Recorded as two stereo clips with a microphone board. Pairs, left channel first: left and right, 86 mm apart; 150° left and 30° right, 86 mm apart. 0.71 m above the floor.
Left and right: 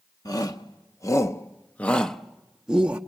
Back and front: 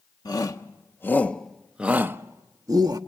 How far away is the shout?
About 1.0 m.